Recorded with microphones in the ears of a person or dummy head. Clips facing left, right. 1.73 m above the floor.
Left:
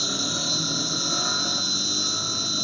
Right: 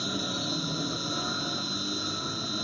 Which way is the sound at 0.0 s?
60° left (ahead or behind).